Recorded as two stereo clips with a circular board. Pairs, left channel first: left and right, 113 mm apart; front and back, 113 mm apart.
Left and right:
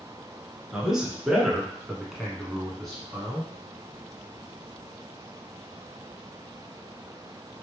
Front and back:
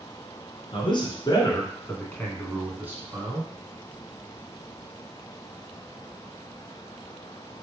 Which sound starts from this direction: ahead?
A man speaking, at 0.7 s.